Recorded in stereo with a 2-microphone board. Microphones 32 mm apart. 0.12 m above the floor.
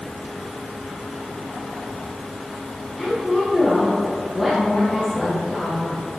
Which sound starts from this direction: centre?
A woman speaking, at 3.0 s.